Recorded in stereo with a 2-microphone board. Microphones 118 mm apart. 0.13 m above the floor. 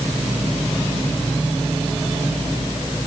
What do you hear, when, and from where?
Only background noise.